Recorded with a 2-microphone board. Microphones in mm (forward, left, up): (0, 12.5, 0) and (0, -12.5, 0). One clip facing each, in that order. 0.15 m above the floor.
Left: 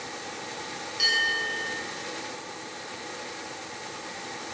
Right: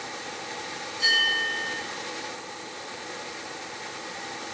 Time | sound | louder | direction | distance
1.0 | a bell | right 2 dB | 55° left (ahead or behind) | 8 m